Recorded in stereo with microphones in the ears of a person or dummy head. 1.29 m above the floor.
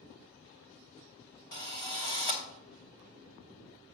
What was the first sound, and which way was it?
A drill, 30° left (ahead or behind).